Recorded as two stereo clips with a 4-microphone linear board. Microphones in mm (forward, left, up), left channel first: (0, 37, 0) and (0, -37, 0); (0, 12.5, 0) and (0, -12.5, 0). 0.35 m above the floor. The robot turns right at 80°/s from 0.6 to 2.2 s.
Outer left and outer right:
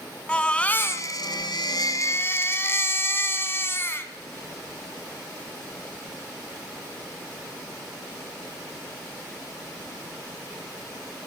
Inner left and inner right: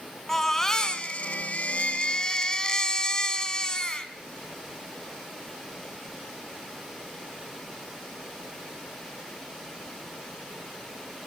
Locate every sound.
0.3 s a baby crying: 15° left, 2.5 m; by 4.1 s 145° left, 2.5 m